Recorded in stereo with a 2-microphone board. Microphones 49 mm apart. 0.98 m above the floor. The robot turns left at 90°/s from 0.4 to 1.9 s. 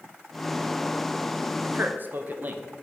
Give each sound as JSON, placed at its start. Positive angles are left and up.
{"t": 1.6, "sound": "a man speaking", "side_deg": -50, "distance_m": 0.6}